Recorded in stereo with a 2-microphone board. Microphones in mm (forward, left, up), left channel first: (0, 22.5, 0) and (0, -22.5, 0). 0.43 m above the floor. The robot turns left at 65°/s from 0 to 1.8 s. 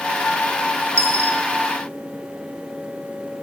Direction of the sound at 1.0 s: 80° right.